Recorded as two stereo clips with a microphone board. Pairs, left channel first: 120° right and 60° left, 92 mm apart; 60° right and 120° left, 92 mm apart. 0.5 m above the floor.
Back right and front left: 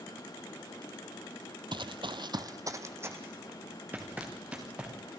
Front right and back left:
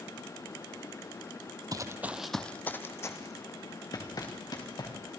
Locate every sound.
1.7 s running footsteps: 80° left, 1.0 m; by 5.2 s 20° right, 4.5 m